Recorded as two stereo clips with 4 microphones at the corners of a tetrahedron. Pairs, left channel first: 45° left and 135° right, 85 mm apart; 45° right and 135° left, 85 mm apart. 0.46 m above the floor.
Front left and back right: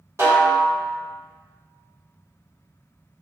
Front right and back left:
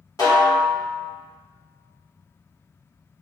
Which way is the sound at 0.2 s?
85° right.